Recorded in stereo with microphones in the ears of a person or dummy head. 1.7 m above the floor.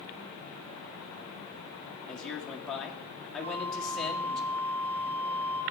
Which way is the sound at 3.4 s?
70° right (ahead or behind).